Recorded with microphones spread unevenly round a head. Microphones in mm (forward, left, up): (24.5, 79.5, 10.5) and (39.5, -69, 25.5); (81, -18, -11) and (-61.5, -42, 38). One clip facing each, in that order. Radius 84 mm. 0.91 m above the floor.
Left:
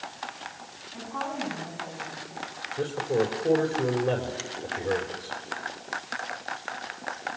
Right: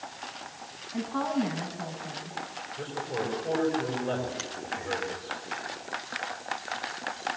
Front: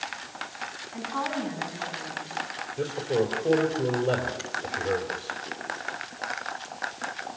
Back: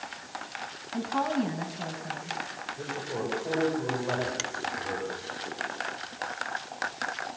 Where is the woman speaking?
140° right, 8.5 m.